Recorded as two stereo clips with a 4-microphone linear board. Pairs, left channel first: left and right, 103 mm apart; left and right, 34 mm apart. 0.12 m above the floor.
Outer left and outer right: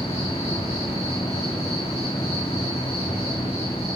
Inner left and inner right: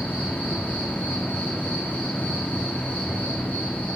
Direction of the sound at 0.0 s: 80° left.